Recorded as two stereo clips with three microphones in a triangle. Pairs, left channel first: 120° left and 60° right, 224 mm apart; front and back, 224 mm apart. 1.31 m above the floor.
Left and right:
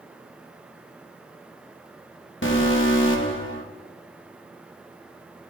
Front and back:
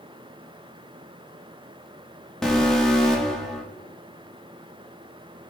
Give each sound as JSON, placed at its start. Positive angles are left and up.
{"t": 2.4, "sound": "an alarm", "azimuth_deg": 90, "distance_m": 1.2}